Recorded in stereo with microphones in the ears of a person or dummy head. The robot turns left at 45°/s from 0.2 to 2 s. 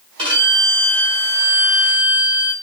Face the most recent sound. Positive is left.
turn(degrees=125)